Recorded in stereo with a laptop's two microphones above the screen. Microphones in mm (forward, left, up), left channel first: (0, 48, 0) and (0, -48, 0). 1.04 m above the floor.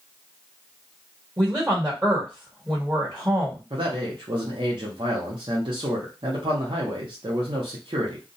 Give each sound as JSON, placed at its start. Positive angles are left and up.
{"t": 1.4, "sound": "a woman speaking", "side_deg": -25, "distance_m": 1.5}
{"t": 3.7, "sound": "a man speaking", "side_deg": -60, "distance_m": 0.8}